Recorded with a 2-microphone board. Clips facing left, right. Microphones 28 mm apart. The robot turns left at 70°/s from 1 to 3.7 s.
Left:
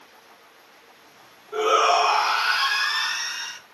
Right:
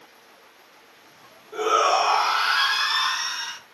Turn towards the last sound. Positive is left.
turn(degrees=-110)